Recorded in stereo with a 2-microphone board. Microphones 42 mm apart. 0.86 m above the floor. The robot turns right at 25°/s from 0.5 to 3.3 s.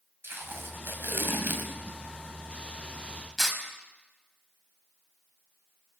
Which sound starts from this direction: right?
Tape being pulled, at 0.2 s.